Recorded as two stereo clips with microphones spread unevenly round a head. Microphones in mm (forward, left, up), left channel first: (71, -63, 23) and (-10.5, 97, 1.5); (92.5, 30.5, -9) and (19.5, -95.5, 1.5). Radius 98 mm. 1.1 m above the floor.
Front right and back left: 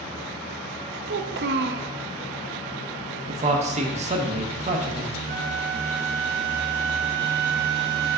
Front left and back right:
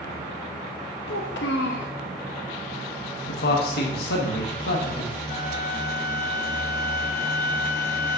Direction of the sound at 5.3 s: 105° left.